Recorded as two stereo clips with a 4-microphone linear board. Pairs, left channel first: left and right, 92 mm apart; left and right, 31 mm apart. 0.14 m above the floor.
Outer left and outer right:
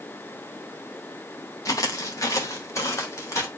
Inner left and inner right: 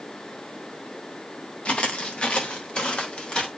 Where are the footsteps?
40° left (ahead or behind), 2 m; by 3.5 s 35° left (ahead or behind), 3.5 m.